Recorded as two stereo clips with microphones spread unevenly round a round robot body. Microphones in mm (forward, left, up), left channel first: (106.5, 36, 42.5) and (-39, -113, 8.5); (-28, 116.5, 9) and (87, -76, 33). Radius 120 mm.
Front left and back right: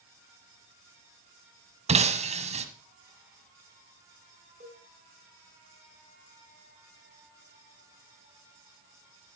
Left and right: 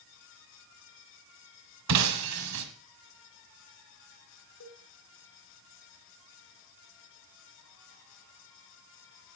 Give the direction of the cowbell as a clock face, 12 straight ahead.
7 o'clock.